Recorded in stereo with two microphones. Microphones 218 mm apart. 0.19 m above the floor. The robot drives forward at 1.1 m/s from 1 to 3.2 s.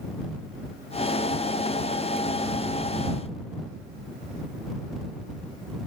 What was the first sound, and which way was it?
Only background noise.